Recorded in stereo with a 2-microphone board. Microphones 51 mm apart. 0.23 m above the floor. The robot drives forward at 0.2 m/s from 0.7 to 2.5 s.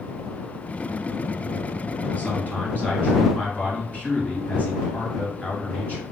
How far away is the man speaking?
About 1.6 m.